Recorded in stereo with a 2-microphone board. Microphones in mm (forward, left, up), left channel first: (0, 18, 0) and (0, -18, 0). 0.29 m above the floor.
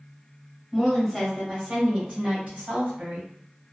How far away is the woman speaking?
About 1.5 m.